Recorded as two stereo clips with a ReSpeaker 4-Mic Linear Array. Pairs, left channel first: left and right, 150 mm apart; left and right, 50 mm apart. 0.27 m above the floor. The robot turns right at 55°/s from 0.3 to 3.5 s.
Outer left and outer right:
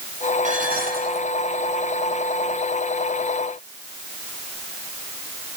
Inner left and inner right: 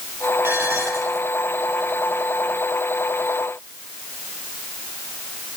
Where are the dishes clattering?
125° right, 4.5 m; by 1.3 s 80° right, 4.5 m.